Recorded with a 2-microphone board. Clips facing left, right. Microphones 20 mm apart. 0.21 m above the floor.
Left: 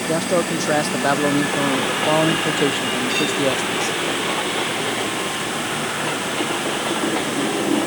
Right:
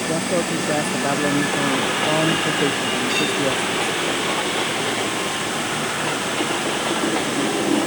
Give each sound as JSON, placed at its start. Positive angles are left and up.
{"t": 0.1, "sound": "a man speaking", "side_deg": 55}